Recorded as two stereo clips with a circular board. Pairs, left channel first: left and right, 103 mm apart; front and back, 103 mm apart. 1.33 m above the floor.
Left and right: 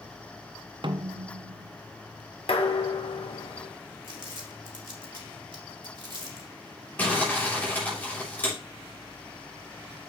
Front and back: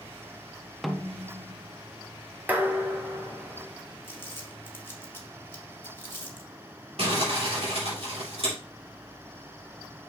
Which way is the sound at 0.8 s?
90° right.